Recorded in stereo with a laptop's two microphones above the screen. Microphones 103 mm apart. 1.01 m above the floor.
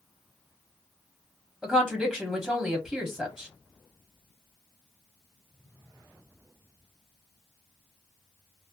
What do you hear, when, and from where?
1.6 s a woman speaking: centre (ahead or behind), 1.2 m